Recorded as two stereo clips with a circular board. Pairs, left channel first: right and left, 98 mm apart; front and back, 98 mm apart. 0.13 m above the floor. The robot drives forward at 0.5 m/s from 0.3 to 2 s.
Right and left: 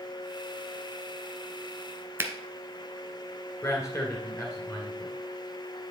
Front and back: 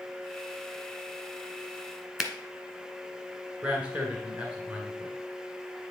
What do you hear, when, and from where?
2.2 s a finger snap: 105° left, 1.0 m
3.6 s a man speaking: 115° right, 1.7 m